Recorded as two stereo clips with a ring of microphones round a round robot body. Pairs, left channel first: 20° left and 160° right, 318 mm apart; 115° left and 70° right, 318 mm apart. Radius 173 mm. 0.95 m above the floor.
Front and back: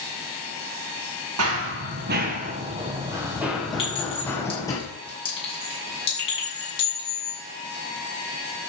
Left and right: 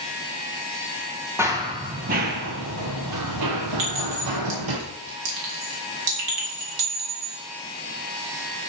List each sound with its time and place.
1.4 s running footsteps: 145° right, 1.1 m; by 4.8 s 55° right, 1.8 m
3.8 s a clink: 50° right, 4.5 m